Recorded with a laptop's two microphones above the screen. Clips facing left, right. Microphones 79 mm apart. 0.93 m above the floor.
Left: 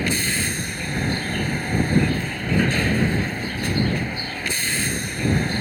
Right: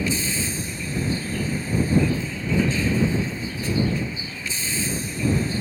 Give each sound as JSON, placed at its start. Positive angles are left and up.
{"t": 0.0, "sound": "a vehicle", "side_deg": 60}